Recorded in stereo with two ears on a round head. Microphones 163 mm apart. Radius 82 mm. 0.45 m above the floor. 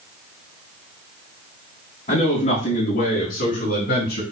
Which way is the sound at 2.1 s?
35° left (ahead or behind).